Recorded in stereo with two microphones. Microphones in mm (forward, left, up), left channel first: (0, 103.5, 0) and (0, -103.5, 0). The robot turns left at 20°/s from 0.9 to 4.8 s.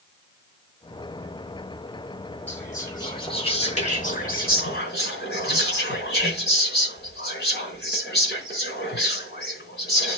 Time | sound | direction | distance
2.5 | whispering | 170° left | 4.5 m